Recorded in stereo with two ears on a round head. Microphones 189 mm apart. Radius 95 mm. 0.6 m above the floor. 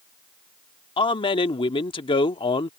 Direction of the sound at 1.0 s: 25° left (ahead or behind).